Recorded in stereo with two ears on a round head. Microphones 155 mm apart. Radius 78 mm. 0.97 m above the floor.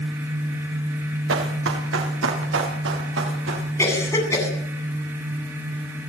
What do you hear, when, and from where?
1.3 s running footsteps: 85° right, 7.5 m
3.8 s a cough: 15° left (ahead or behind), 9.5 m